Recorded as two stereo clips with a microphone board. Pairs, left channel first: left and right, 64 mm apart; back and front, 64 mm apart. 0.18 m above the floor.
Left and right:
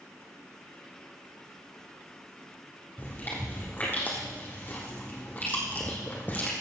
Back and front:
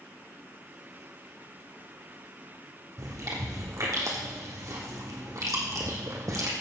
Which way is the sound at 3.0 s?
30° left.